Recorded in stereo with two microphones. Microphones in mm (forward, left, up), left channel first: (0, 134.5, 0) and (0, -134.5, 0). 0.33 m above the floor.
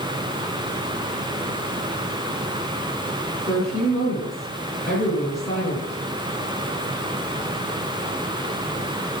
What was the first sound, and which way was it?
A woman speaking, 10° left (ahead or behind).